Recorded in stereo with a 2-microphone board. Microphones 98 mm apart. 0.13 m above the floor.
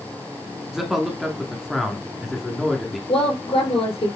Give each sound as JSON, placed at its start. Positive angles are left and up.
{"t": 0.7, "sound": "a man speaking", "side_deg": -5, "distance_m": 1.3}
{"t": 3.1, "sound": "a woman speaking", "side_deg": 70, "distance_m": 4.0}